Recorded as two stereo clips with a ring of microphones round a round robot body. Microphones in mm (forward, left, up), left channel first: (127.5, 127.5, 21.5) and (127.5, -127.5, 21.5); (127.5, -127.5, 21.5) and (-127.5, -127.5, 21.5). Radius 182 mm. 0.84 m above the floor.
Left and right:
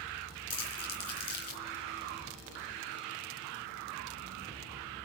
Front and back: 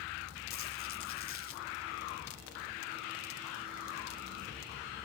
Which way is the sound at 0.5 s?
65° left.